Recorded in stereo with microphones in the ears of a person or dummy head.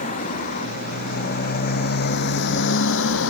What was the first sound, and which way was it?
A motorcycle, 45° left (ahead or behind).